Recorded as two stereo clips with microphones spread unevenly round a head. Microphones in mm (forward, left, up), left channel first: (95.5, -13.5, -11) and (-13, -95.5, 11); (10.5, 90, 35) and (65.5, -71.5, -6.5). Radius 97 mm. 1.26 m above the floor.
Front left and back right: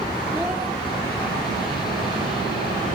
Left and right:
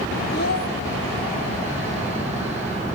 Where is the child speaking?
140° left, 1.1 m.